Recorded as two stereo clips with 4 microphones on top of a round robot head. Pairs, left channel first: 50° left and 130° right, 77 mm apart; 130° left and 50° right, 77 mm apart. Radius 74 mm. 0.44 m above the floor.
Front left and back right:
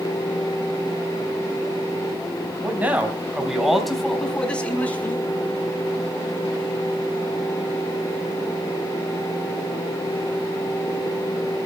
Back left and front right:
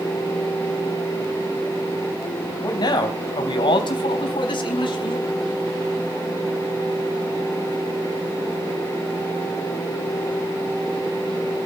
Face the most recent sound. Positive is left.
turn(degrees=115)